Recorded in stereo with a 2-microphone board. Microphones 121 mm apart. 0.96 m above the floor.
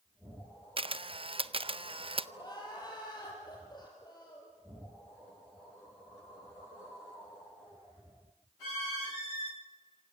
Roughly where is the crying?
Left.